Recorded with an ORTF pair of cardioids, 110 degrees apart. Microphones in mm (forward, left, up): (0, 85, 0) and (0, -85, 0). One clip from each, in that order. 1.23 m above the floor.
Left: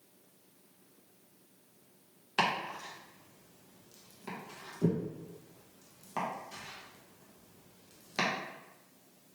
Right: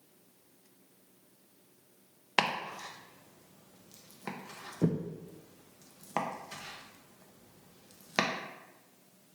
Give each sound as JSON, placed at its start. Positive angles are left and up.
{"t": 2.4, "sound": "chopping", "azimuth_deg": -40, "distance_m": 0.7}